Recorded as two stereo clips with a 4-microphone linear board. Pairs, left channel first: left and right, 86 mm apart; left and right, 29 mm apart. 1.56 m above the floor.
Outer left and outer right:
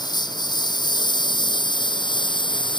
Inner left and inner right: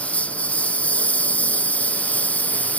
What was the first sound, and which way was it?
A lawn mower, 55° left (ahead or behind).